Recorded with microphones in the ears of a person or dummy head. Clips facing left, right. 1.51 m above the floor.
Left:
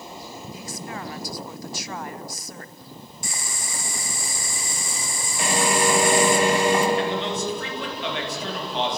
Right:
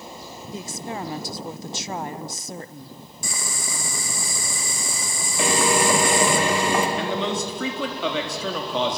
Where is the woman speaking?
30° right (ahead or behind), 0.9 m.